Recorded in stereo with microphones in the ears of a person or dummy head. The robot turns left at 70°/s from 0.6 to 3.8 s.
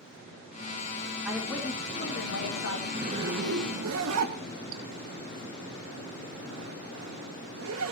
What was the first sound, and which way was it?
A woman speaking, 170° right.